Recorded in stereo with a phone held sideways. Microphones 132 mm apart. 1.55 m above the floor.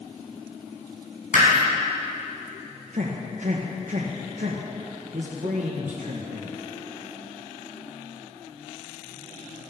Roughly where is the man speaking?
Right.